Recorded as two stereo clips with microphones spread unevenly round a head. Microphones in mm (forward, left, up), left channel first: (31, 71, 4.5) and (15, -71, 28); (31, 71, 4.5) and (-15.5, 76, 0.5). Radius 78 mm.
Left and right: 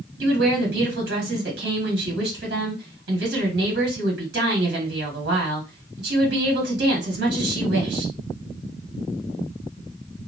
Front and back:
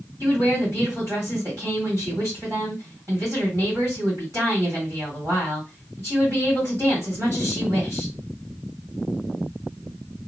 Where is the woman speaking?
125° right, 2 m.